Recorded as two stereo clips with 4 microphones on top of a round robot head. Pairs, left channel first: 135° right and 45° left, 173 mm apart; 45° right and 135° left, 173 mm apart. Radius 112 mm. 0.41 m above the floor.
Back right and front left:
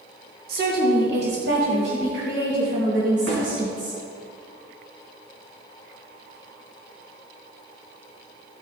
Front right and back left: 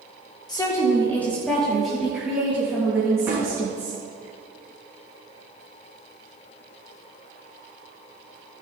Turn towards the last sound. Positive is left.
turn(degrees=60)